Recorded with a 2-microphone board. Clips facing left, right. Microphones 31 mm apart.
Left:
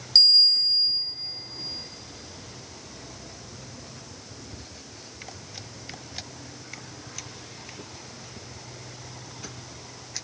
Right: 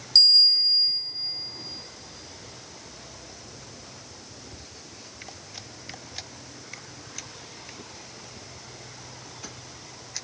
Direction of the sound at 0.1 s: 10° left (ahead or behind).